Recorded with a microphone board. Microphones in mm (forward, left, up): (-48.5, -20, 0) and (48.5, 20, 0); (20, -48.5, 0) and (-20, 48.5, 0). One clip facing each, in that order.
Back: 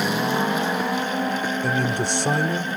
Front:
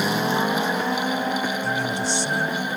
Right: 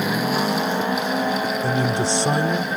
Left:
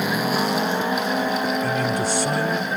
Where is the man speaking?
125° right; by 2.7 s 135° right.